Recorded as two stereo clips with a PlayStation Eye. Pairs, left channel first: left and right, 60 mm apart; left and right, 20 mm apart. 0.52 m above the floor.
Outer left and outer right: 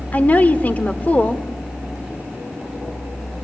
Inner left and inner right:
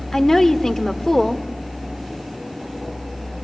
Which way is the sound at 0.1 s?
25° left (ahead or behind).